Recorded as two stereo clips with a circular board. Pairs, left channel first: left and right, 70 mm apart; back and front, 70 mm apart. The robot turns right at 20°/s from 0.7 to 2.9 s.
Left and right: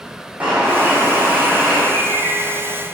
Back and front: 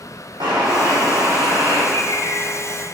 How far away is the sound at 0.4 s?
About 2 m.